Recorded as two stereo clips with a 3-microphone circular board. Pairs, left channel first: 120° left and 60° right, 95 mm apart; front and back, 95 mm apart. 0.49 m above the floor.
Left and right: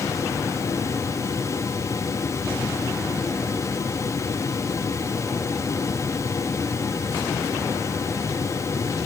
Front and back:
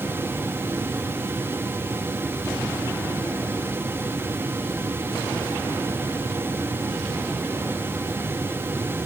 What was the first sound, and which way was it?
Only background noise.